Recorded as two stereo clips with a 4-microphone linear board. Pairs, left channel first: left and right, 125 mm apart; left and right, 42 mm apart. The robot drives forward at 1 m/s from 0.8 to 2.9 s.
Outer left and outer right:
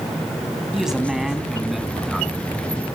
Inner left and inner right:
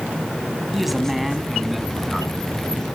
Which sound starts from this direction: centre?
A man speaking, at 0.7 s.